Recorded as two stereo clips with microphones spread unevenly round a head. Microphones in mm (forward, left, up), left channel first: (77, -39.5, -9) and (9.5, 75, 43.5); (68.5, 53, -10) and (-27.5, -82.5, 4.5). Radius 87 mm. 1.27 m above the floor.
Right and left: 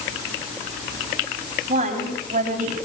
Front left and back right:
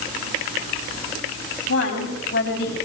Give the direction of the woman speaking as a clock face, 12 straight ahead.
9 o'clock.